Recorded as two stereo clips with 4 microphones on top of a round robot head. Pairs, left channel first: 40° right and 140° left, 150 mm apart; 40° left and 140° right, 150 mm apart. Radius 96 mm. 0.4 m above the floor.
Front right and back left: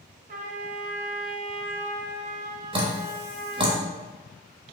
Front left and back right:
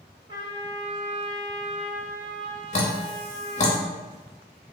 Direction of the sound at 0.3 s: 165° left.